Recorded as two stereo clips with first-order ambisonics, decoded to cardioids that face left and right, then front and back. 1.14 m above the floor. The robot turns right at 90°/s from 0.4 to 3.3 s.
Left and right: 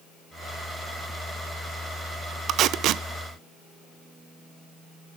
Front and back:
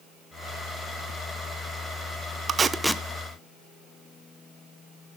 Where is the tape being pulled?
125° right, 0.7 m; by 3.0 s 75° right, 0.7 m.